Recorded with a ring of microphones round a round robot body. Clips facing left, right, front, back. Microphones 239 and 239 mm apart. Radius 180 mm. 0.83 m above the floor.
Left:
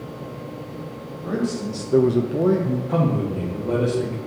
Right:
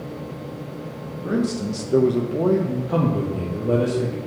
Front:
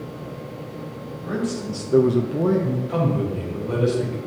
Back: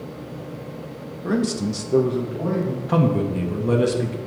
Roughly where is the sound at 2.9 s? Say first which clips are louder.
Right 2 dB, back 7 dB; behind.